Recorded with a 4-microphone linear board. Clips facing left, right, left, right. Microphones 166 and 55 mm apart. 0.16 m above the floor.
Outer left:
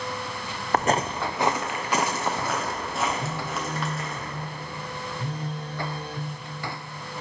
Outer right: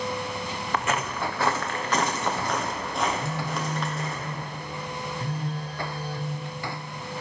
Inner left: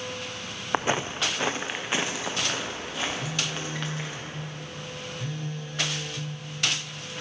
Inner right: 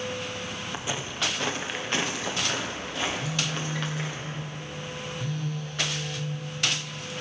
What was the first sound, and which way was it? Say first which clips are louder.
Footsteps: outer left 5 dB, inner left 9 dB; 50° left (ahead or behind).